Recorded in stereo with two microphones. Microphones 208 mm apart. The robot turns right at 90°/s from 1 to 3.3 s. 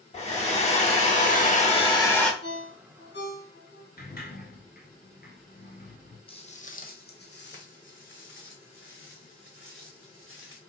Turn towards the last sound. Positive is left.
turn(degrees=80)